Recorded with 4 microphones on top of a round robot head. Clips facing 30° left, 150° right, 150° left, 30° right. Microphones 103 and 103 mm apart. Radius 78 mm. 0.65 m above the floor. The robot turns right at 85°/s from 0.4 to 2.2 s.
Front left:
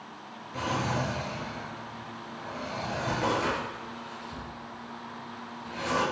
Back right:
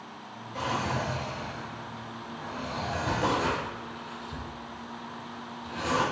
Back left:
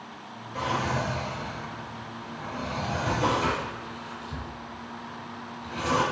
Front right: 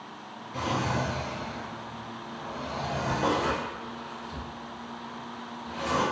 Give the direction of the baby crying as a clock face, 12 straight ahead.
I don't hear a baby crying.